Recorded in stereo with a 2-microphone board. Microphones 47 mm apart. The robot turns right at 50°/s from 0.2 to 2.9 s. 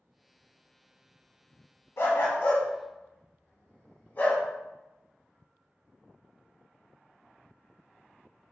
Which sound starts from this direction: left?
A dog barking, at 2.0 s.